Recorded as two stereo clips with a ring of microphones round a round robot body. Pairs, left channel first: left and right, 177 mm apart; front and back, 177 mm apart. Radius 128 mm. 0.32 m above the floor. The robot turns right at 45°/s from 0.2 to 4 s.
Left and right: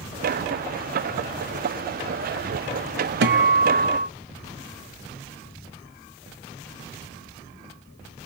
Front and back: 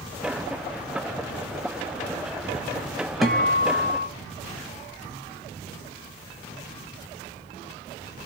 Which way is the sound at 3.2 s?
90° right.